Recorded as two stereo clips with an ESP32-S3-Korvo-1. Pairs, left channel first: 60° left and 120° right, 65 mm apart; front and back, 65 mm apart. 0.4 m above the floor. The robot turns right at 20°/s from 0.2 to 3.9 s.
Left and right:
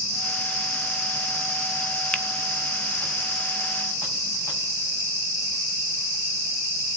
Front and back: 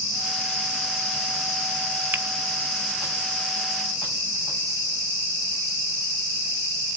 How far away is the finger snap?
About 0.9 m.